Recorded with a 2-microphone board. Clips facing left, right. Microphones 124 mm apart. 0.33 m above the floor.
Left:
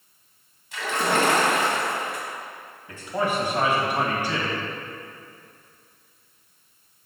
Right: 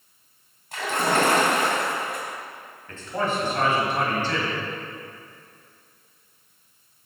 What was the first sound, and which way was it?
A splash, 50° right (ahead or behind).